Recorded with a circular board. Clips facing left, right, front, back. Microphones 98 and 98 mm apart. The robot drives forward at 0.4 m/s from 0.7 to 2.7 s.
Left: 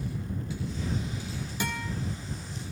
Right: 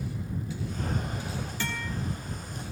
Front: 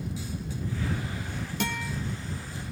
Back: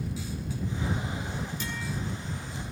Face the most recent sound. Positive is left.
turn(degrees=20)